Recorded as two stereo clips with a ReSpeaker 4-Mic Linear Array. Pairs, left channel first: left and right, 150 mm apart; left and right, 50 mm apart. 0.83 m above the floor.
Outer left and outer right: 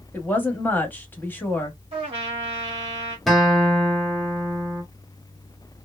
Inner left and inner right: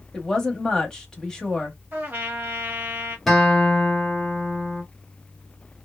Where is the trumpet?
40° right (ahead or behind), 1.1 m.